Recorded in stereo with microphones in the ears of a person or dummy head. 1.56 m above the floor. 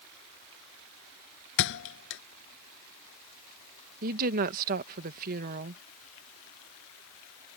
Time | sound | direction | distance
1.6 | a thud | 65° left (ahead or behind) | ?
4.0 | a woman speaking | 50° right (ahead or behind) | ?